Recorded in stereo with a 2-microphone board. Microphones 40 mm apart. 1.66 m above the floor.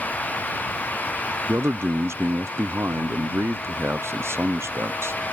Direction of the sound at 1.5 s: 85° right.